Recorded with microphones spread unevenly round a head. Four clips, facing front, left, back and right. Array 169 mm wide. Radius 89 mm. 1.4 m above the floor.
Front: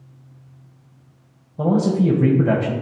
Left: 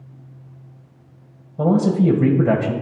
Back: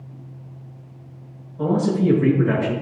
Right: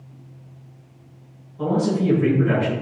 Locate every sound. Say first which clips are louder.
1.6 s a man speaking: left 4 dB, front 2 dB; 50° left, 1.7 m